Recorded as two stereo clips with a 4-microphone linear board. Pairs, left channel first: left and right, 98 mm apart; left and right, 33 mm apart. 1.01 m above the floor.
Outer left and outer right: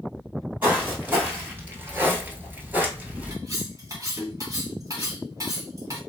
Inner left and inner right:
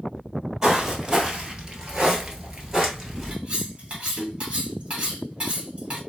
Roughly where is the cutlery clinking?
Right.